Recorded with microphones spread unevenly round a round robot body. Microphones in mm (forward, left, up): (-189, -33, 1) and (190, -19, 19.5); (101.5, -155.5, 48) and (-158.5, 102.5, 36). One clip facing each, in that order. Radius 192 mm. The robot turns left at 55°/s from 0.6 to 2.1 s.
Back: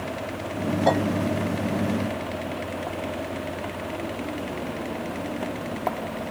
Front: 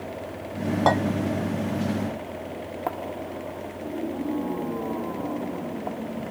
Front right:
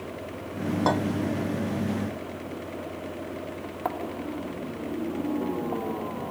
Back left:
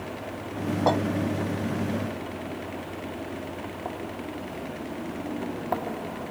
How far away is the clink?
About 1.4 m.